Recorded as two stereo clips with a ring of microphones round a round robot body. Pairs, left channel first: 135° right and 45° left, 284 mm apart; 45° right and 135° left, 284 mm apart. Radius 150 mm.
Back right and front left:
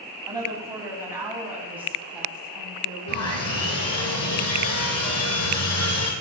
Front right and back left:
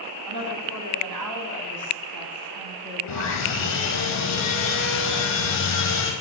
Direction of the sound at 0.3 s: 120° left.